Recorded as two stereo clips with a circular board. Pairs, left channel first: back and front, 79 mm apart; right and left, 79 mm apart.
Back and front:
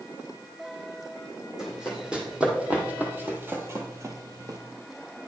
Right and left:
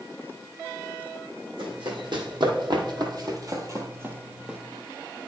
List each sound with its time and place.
1.6 s running footsteps: 85° left, 1.9 m; by 4.6 s 10° left, 0.9 m